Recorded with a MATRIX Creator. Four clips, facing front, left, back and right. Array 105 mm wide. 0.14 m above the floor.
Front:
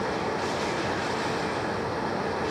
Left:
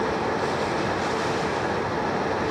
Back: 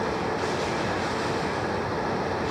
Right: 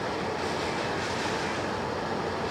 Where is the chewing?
No chewing in this recording.